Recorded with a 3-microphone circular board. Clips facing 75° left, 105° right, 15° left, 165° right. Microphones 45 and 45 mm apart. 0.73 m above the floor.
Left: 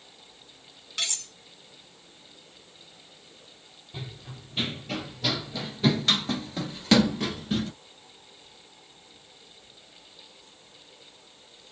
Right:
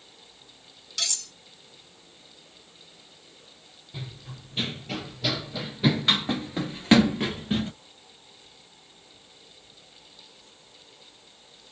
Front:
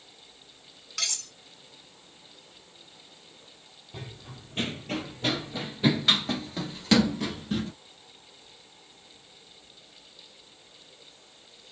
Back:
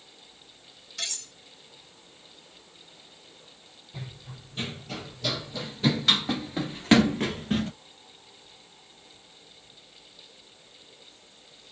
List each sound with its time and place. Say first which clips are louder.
1.0 s cutlery clinking: left 1 dB, front 2 dB; 10° left, 1.7 m
3.9 s running footsteps: even, even; 10° right, 1.4 m; by 7.7 s 160° right, 1.1 m